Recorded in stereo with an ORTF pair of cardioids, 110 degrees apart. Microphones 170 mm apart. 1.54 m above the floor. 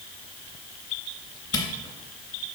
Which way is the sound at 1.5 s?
25° left.